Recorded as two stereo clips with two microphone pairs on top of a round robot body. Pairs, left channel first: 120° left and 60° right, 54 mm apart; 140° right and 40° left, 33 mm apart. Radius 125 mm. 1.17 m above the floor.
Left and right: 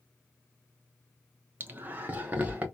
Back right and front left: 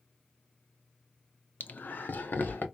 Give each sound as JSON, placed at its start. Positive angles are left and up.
{"t": 1.6, "sound": "laughter", "azimuth_deg": -115, "distance_m": 0.5}